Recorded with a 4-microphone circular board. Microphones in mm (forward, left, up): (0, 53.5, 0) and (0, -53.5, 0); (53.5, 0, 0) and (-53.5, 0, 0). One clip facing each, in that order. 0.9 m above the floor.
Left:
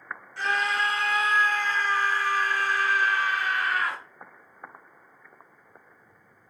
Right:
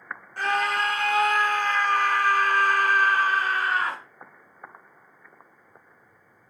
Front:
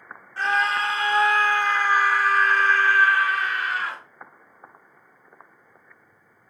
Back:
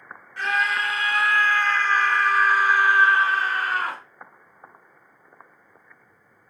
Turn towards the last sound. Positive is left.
turn(degrees=-150)